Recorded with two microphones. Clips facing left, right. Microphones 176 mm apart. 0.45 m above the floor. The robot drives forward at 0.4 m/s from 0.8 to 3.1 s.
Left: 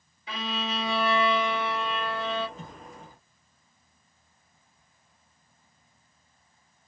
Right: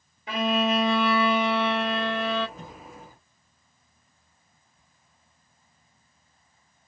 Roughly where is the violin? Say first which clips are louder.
Right 9 dB; right.